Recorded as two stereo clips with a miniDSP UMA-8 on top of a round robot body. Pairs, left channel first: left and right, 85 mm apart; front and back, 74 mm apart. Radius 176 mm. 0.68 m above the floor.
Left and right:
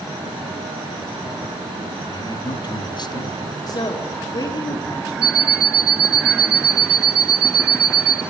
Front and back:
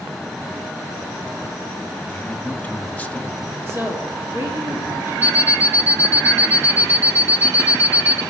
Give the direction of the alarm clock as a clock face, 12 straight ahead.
4 o'clock.